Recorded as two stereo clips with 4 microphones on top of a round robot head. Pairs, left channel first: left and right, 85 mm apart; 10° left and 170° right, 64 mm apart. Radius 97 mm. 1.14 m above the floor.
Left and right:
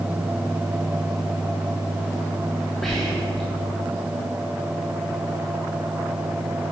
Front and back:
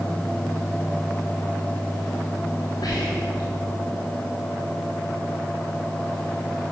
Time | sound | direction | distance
2.8 | whispering | 5° left | 2.0 m